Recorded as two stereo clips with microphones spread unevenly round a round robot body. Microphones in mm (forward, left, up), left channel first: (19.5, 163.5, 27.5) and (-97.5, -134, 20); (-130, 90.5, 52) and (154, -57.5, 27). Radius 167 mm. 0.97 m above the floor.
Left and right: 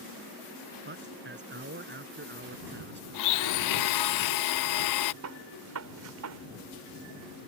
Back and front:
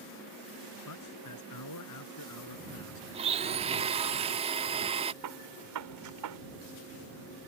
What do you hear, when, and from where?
0.8 s a man speaking: 170° right
3.1 s a blender: 45° left
5.2 s a gunshot: 65° right